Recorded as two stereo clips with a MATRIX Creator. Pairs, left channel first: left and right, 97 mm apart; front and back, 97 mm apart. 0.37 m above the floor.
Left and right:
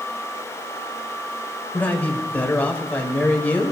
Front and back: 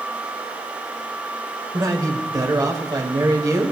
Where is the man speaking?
155° left, 1.6 m.